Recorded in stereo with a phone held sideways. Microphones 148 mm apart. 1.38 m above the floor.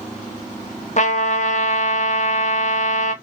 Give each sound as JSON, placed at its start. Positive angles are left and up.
{"t": 1.0, "sound": "a trumpet", "side_deg": 55, "distance_m": 0.6}